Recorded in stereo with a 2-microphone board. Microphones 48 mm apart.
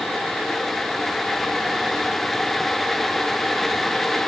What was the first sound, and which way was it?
Only background noise.